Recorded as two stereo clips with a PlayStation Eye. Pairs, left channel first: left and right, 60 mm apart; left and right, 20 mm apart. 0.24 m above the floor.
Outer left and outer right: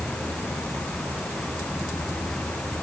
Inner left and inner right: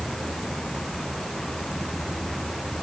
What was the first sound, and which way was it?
Only background noise.